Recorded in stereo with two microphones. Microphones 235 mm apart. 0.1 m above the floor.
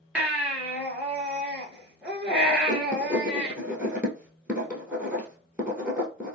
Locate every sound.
0.1 s a baby crying: 5° right (ahead or behind), 1.0 m
2.7 s writing: 5° right (ahead or behind), 1.1 m